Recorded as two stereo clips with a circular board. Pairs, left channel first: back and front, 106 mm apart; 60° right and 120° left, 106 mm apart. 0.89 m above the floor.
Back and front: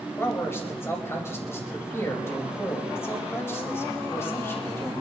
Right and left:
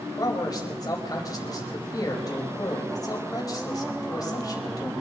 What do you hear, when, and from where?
0.2 s a man speaking: 115° right, 4 m